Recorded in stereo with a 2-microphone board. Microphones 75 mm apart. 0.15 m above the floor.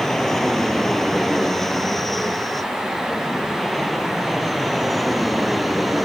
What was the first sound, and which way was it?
An aircraft, 5° left (ahead or behind).